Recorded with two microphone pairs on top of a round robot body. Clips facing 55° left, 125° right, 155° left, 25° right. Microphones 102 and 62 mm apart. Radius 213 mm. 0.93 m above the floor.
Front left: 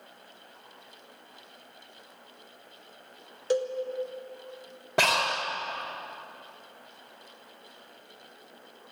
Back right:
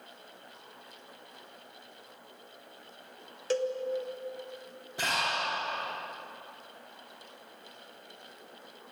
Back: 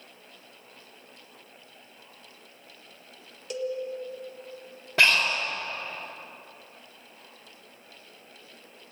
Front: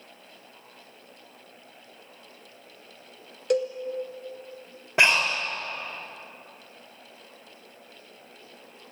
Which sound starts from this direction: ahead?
A cowbell, at 3.5 s.